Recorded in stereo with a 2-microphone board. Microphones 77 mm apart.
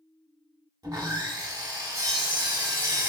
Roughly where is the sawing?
Right.